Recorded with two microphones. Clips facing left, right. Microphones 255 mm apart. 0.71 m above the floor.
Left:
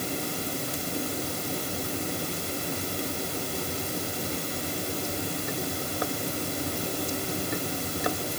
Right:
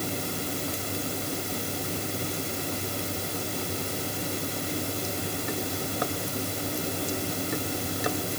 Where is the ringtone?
I don't hear a ringtone.